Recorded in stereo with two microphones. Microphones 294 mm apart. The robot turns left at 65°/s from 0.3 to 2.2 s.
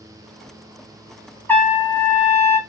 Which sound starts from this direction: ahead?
A trumpet, at 1.5 s.